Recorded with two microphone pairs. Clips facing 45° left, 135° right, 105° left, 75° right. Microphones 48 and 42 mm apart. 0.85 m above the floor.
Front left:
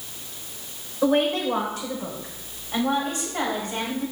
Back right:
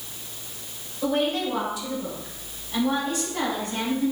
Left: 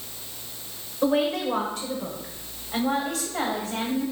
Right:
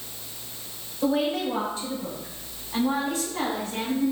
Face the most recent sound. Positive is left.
turn(degrees=105)